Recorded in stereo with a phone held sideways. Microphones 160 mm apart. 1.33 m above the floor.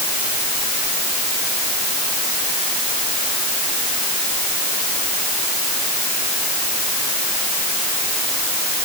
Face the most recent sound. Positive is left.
No sound to turn to.